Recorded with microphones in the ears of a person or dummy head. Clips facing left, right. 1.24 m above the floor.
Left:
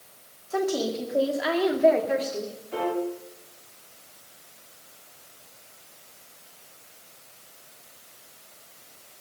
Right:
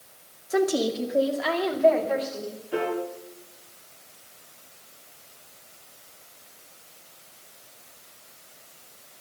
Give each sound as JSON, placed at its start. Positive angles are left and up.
{"t": 0.5, "sound": "a woman speaking", "side_deg": -35, "distance_m": 2.0}
{"t": 2.7, "sound": "a piano", "side_deg": -25, "distance_m": 3.5}